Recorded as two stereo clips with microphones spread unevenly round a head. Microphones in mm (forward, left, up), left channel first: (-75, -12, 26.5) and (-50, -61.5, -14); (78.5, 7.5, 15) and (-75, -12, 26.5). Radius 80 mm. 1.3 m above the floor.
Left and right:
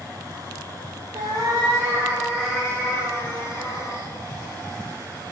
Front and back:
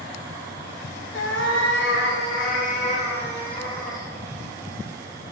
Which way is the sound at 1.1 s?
Straight ahead.